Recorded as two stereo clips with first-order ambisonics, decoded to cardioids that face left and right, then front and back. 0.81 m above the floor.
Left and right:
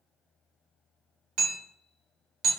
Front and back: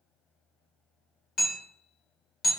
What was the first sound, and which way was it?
Hammering, 65° right.